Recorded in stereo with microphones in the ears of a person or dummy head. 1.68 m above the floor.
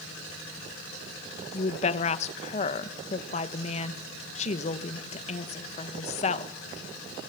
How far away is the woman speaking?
About 2.0 m.